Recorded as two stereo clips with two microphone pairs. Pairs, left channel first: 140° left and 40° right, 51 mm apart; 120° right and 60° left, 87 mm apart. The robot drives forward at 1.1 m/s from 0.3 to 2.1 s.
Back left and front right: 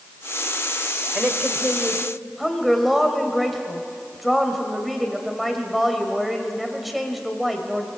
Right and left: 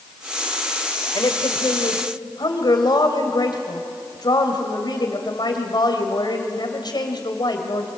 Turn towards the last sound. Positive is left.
turn(degrees=-130)